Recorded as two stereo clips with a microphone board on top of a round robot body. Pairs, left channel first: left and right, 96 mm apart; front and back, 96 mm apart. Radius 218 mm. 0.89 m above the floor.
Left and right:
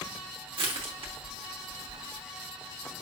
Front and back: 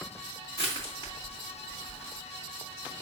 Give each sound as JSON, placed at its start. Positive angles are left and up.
{"t": 0.6, "sound": "crushing", "azimuth_deg": -55, "distance_m": 0.8}